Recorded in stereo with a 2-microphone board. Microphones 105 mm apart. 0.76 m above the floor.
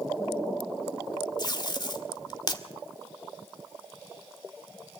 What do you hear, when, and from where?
1.4 s tape being pulled: 40° left (ahead or behind), 1.6 m